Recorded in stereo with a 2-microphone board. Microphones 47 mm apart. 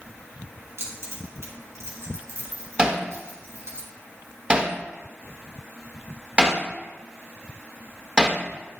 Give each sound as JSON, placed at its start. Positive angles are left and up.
{"t": 0.8, "sound": "keys jangling", "side_deg": -75, "distance_m": 2.5}
{"t": 2.8, "sound": "hammering", "side_deg": -20, "distance_m": 1.1}